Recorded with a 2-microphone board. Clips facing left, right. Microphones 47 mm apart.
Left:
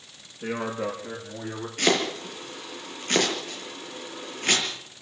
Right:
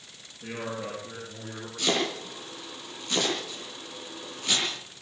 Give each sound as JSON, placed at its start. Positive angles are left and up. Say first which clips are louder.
{"t": 0.4, "sound": "a man speaking", "louder": "left 5 dB", "side_deg": 50, "distance_m": 8.5}
{"t": 1.8, "sound": "chopping", "louder": "left 4 dB", "side_deg": 50, "distance_m": 6.5}